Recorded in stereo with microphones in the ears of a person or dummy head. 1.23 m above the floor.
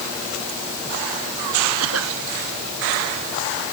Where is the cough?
85° right.